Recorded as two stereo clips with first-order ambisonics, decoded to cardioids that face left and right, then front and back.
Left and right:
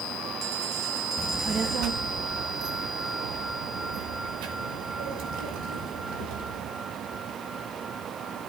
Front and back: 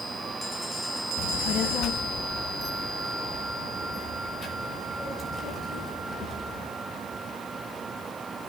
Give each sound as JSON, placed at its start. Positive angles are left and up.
{"t": 1.2, "sound": "a child speaking", "azimuth_deg": -10, "distance_m": 0.7}